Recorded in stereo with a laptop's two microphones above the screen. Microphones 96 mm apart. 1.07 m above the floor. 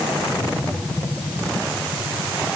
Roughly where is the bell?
No bell in this recording.